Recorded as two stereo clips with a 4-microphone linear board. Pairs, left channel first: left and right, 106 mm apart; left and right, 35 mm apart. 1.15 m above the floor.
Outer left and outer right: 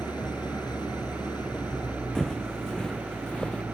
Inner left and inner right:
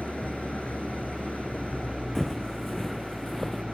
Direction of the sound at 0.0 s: 40° left (ahead or behind).